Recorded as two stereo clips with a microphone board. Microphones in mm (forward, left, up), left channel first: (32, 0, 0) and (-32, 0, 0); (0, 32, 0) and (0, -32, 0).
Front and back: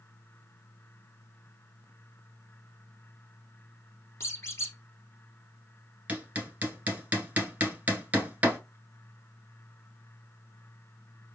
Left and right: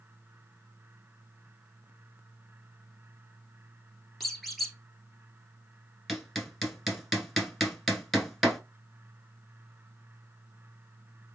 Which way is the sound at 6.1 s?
175° left.